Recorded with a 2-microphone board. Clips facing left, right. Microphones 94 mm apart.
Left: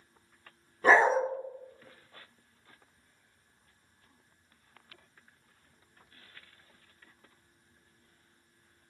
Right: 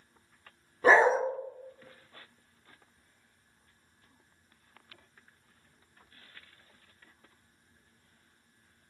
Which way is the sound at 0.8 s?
10° right (ahead or behind).